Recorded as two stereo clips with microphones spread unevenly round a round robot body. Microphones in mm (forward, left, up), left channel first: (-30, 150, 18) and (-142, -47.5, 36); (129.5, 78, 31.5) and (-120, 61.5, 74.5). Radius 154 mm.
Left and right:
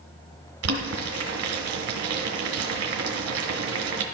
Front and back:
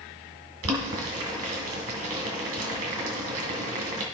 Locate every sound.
0.6 s boiling: 130° right, 1.9 m